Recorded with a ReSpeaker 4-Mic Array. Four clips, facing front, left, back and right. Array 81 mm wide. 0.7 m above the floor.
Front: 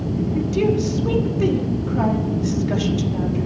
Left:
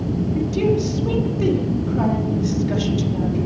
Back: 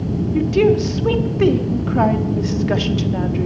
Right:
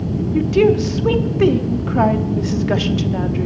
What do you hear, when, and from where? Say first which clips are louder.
0.3 s a woman speaking: right 7 dB, back 6 dB; 125° right, 1.1 m